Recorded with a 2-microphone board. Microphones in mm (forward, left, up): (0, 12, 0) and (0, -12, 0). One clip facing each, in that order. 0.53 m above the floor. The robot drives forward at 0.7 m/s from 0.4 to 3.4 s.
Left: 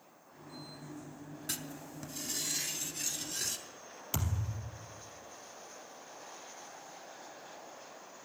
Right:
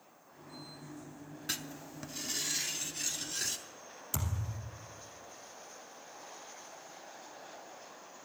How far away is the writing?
About 0.6 m.